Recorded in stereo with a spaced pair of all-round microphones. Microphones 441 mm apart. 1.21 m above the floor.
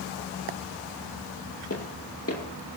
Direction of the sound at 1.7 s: 30° left (ahead or behind).